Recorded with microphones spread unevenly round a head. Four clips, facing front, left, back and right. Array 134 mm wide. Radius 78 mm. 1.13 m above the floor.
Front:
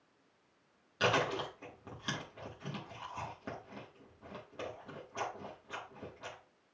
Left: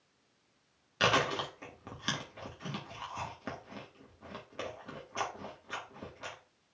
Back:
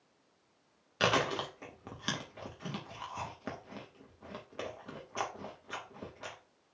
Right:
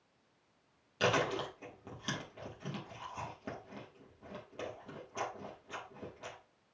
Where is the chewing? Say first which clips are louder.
Left 2 dB, back 1 dB; 165° right, 1.8 m.